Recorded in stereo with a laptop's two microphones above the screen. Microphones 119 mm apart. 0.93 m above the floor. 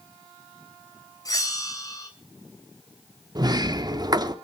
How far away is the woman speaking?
I don't hear a woman speaking.